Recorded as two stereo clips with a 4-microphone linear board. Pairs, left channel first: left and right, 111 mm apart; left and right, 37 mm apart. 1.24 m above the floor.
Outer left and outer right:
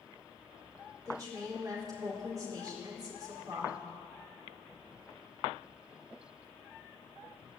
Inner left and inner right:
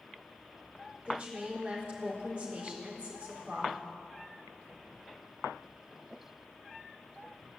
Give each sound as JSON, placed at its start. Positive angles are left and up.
{"t": 1.1, "sound": "a woman speaking", "side_deg": -35, "distance_m": 4.0}